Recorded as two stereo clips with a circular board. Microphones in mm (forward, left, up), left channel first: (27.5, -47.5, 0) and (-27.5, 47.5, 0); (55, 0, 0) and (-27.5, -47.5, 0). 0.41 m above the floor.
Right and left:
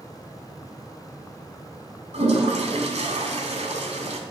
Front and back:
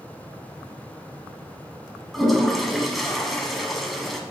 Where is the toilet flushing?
120° left, 1.2 m.